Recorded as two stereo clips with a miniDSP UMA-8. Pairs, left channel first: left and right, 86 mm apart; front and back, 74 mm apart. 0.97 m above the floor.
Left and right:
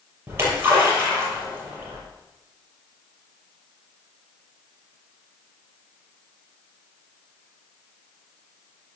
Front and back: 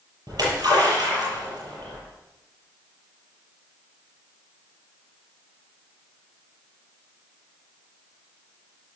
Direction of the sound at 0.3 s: 150° right.